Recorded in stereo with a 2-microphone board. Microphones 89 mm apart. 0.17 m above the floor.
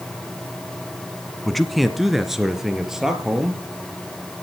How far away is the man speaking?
About 1.2 m.